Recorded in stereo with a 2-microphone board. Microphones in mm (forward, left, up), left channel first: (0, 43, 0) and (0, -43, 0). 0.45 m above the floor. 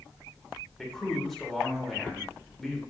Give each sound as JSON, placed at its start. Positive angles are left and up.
{"t": 0.8, "sound": "a man speaking", "side_deg": 0, "distance_m": 1.2}